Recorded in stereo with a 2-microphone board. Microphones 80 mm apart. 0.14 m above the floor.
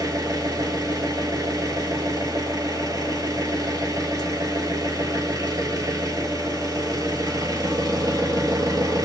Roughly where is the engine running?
Right.